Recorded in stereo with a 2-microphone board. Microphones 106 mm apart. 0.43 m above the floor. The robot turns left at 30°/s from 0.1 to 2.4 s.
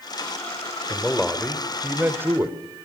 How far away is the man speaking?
About 1.9 m.